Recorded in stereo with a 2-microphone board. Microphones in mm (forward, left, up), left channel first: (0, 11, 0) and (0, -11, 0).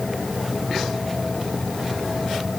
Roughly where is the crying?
No crying in this recording.